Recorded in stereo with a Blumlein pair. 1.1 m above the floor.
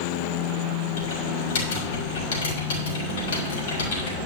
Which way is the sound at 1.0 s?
60° left.